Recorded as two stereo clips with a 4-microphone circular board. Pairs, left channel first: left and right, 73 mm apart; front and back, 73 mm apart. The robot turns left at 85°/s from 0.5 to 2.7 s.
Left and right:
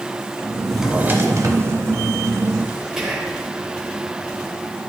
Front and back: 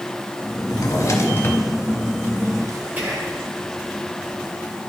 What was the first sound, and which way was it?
A drawer, 5° left.